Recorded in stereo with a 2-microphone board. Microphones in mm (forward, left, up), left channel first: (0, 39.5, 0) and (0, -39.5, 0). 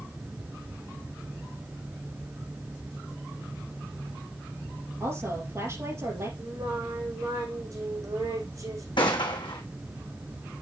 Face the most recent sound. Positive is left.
turn(degrees=80)